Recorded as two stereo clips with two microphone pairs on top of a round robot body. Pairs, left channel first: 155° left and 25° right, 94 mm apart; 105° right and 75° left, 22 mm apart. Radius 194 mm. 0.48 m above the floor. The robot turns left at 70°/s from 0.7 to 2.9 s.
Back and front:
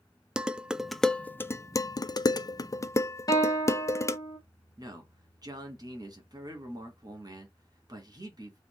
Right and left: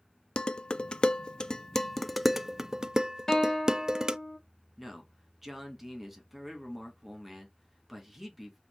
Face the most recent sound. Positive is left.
turn(degrees=0)